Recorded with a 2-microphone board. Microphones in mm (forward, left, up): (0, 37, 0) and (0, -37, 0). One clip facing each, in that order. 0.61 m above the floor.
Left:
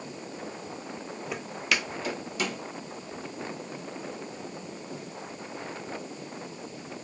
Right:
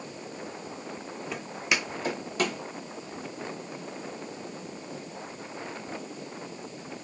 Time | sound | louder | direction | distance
1.3 | footsteps | even | 5° left (ahead or behind) | 0.6 m